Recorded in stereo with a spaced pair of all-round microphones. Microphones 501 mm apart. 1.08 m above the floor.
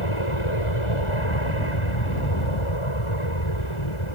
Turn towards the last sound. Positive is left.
turn(degrees=75)  # may be behind; listen again after turning